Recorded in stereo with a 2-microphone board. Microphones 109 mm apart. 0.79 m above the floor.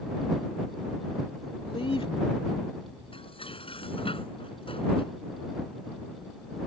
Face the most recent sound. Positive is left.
turn(degrees=55)  # may be behind; listen again after turning